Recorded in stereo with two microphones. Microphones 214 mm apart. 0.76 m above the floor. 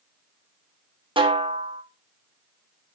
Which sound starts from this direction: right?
A snare drum, at 1.2 s.